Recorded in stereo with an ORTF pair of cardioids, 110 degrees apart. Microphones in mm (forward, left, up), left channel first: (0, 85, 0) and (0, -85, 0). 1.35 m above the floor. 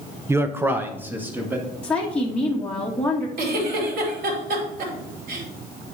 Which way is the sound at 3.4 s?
60° right.